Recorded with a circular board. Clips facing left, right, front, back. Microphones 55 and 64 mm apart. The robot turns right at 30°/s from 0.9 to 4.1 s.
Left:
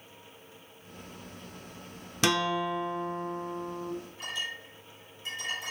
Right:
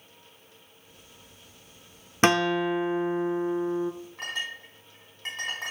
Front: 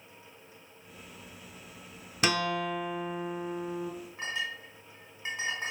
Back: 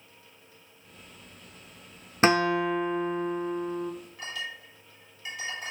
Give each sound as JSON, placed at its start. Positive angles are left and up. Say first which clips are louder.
{"t": 2.2, "sound": "a guitar", "louder": "right 5 dB, back 7 dB", "azimuth_deg": -135, "distance_m": 0.6}
{"t": 4.2, "sound": "a clink", "louder": "right 2 dB, front 2 dB", "azimuth_deg": -60, "distance_m": 5.0}